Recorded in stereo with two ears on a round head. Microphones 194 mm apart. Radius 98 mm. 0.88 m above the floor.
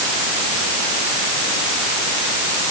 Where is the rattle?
No rattle in this recording.